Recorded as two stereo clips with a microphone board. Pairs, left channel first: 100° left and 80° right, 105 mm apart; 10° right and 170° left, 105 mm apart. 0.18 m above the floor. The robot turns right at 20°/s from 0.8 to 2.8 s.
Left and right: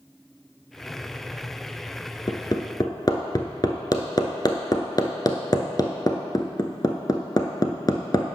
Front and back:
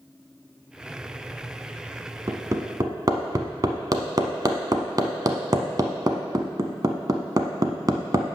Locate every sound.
2.3 s hammering: 120° left, 0.9 m; by 8.3 s 130° left, 0.9 m